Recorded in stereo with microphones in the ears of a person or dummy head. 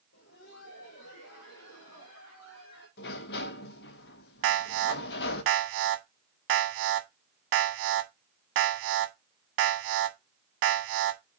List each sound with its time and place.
0.1 s laughter: 55° left (ahead or behind), 1.0 m; by 2.9 s 75° left (ahead or behind), 2.5 m
3.0 s a sliding door: 55° left (ahead or behind), 0.8 m
4.4 s an alarm: 75° right (ahead or behind), 1.3 m